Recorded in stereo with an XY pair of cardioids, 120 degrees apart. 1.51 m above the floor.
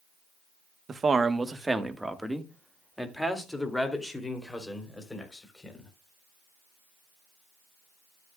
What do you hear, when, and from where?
0.9 s a man speaking: 35° right, 1.2 m; by 5.9 s 15° left, 5 m